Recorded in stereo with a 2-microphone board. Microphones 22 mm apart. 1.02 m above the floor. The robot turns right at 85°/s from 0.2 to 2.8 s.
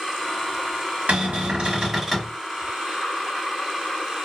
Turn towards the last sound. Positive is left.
turn(degrees=50)